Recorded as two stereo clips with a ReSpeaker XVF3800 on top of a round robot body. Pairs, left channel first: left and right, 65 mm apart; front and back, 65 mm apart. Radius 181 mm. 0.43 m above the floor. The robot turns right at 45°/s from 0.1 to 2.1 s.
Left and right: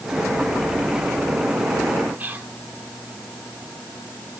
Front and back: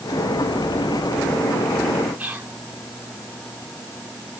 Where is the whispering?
130° right, 1.6 m.